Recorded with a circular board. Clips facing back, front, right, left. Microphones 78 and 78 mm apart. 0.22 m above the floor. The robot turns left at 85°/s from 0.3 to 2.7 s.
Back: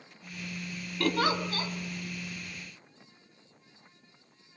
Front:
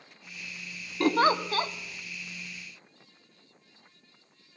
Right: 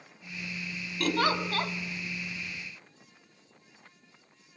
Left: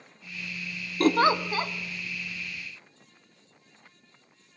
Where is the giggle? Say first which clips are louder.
Front 5 dB, left 6 dB; 60° left, 0.5 m; by 1.7 s straight ahead, 0.5 m.